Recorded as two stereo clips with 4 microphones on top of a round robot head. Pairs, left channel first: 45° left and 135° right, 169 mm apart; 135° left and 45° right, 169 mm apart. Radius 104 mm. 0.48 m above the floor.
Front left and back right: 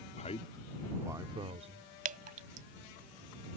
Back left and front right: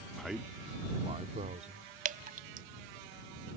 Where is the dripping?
90° right.